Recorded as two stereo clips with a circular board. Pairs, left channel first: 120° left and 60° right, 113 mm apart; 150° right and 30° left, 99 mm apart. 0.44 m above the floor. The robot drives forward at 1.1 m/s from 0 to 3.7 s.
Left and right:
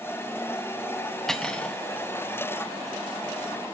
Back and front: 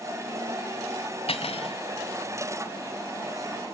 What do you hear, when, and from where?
1.3 s cutlery clinking: 155° right, 1.6 m; by 1.8 s 160° right, 2 m